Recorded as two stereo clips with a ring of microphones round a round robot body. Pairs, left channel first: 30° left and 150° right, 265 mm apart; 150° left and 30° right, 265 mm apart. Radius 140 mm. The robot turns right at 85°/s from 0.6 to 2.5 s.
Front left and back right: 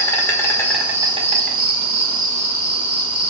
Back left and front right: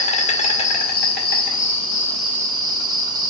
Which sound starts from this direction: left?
An insect, at 0.0 s.